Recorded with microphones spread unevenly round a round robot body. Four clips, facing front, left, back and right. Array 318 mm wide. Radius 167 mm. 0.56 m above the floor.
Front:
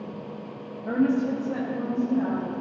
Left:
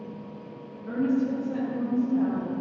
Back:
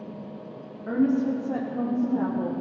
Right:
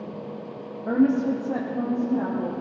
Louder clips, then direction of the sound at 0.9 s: Right 5 dB, even; 90° right.